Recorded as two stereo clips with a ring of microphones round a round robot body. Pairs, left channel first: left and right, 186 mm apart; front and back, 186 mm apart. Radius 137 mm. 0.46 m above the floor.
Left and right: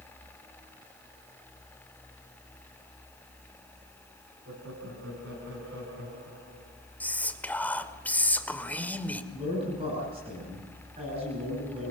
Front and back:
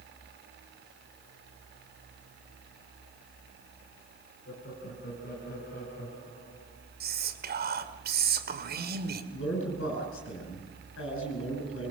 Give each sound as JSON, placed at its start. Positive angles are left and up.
{"t": 4.5, "sound": "laughter", "azimuth_deg": -50, "distance_m": 6.0}
{"t": 7.0, "sound": "whispering", "azimuth_deg": 170, "distance_m": 2.5}
{"t": 9.3, "sound": "a man speaking", "azimuth_deg": -20, "distance_m": 7.5}